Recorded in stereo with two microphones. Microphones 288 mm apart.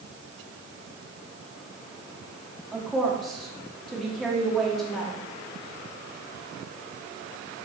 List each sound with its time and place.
2.7 s a woman speaking: centre (ahead or behind), 1.4 m